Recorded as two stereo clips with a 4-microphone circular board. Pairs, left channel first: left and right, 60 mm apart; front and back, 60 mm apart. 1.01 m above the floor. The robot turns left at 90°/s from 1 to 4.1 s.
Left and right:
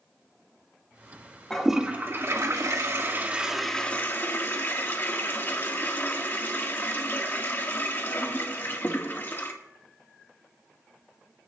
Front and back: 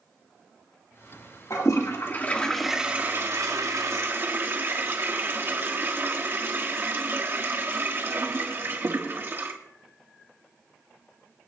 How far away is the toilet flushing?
About 1.8 m.